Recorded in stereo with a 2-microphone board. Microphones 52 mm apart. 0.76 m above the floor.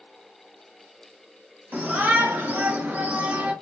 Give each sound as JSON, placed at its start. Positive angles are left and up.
{"t": 1.7, "sound": "a shout", "side_deg": -40, "distance_m": 1.2}